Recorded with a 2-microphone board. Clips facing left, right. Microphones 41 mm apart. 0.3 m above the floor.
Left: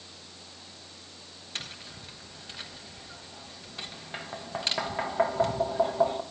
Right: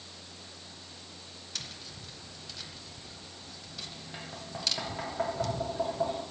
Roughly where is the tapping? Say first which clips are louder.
Left 4 dB; left.